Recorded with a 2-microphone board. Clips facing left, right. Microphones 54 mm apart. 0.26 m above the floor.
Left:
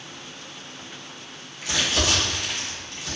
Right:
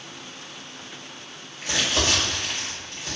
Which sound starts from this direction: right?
Crumpling, at 1.6 s.